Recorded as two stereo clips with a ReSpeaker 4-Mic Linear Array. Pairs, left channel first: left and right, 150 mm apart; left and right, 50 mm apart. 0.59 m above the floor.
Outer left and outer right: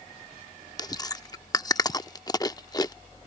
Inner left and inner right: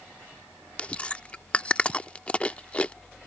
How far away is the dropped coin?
No dropped coin in this recording.